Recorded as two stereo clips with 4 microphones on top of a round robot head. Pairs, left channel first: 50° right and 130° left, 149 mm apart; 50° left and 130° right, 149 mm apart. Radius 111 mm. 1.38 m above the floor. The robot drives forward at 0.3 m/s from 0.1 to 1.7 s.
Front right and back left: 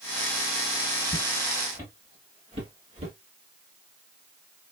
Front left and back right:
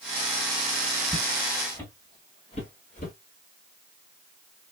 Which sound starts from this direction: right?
Footsteps, at 1.1 s.